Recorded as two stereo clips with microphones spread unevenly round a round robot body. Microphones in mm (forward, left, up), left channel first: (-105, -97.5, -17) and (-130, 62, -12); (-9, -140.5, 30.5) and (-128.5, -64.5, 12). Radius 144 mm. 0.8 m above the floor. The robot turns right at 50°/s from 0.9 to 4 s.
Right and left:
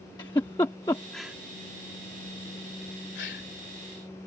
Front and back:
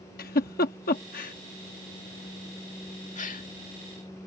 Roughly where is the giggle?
Ahead.